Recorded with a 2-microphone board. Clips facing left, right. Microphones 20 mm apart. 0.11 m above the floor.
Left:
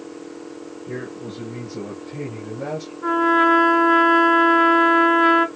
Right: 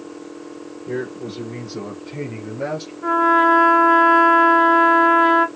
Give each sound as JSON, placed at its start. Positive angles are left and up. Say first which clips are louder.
{"t": 0.9, "sound": "a man speaking", "louder": "right 5 dB", "side_deg": -45, "distance_m": 3.0}
{"t": 3.0, "sound": "a trumpet", "louder": "right 2 dB", "side_deg": 10, "distance_m": 0.5}